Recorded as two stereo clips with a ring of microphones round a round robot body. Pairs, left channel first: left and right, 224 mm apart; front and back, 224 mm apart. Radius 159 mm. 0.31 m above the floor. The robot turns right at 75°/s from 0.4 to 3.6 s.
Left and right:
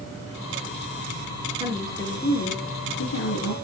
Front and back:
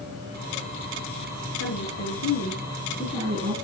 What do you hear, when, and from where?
1.6 s a woman speaking: 25° right, 5.5 m; by 3.5 s 125° left, 5.5 m